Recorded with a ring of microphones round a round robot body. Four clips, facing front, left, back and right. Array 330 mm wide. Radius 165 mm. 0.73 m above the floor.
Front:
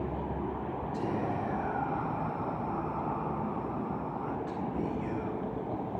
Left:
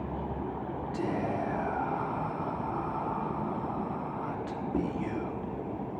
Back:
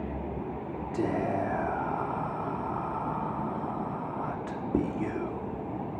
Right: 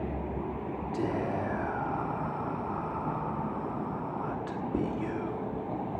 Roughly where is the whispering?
Behind.